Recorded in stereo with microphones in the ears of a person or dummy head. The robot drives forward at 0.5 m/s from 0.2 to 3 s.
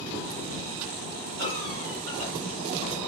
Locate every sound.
1.4 s a cough: 60° right (ahead or behind), 1.7 m; by 2.3 s 50° right (ahead or behind), 1.9 m